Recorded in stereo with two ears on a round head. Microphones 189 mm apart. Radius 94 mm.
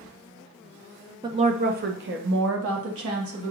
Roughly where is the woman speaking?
Right.